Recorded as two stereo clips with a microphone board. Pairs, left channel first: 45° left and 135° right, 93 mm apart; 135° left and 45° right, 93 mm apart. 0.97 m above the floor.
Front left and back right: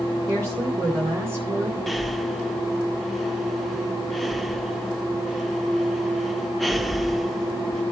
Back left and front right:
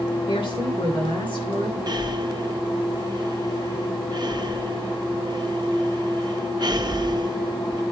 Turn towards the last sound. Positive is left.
turn(degrees=-45)